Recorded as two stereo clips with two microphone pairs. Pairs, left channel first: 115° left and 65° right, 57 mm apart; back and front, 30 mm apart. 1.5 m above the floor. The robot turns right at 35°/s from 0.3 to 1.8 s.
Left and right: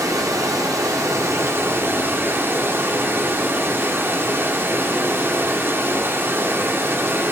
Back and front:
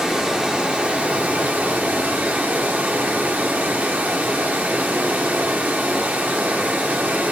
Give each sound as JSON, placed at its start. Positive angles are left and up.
{"t": 0.0, "sound": "running water", "azimuth_deg": -65, "distance_m": 1.5}